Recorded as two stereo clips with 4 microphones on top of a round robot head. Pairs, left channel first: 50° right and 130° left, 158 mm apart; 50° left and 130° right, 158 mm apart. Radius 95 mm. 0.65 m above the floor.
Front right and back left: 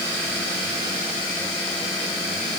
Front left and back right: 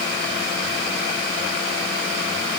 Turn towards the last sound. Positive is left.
No sound to turn to.